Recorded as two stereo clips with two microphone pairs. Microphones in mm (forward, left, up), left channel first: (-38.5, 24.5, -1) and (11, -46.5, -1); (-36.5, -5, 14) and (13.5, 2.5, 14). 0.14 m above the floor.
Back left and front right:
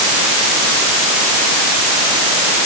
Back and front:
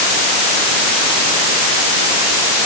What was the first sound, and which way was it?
Only background noise.